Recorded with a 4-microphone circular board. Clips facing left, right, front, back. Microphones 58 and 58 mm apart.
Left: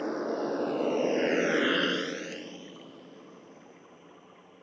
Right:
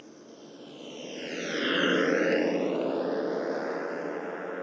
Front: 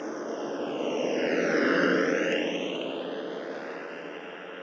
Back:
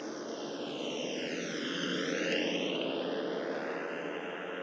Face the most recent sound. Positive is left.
turn(degrees=-95)